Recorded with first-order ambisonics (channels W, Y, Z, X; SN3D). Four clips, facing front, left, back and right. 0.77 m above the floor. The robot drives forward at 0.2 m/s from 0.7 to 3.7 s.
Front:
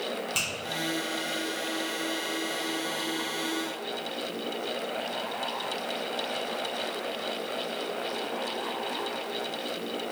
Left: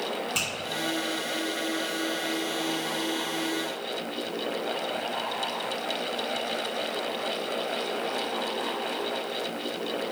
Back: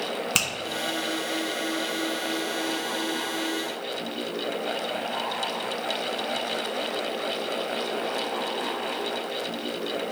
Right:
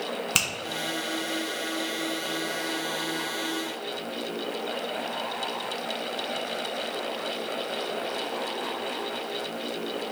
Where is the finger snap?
130° right, 0.5 m.